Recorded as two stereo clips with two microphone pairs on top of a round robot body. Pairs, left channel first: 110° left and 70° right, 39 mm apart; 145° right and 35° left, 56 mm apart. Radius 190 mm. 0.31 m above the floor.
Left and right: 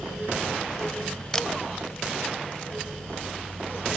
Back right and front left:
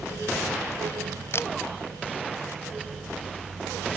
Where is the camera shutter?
Straight behind.